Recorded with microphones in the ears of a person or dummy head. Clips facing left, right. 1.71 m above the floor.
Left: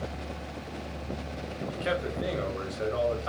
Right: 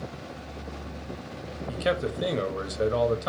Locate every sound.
1.7 s a man speaking: 60° right (ahead or behind), 1.2 m